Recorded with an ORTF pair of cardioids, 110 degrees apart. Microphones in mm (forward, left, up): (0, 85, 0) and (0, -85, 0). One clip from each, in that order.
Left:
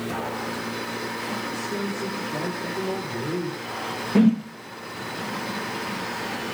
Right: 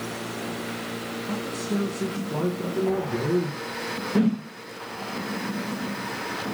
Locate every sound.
1.3 s a man speaking: 60° right, 2 m
4.2 s a whoosh: 10° left, 0.7 m